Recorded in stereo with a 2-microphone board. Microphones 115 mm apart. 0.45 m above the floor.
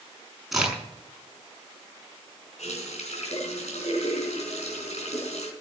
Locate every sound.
0.5 s a crack: centre (ahead or behind), 6 m
2.6 s a running tap: 80° left, 3.5 m